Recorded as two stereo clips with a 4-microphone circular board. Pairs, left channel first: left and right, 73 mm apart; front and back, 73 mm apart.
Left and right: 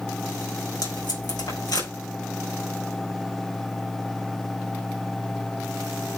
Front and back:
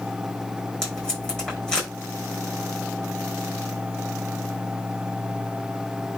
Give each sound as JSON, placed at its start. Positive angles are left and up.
{"t": 0.8, "sound": "tape being pulled", "azimuth_deg": 80, "distance_m": 5.5}